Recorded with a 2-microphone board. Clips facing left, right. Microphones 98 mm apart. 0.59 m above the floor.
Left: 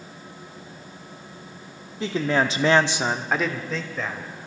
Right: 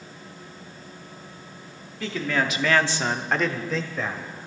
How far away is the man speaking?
About 1.2 m.